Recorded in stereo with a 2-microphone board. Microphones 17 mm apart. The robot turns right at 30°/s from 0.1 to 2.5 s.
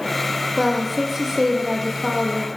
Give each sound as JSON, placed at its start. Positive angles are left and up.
{"t": 0.6, "sound": "a woman speaking", "azimuth_deg": -175, "distance_m": 6.5}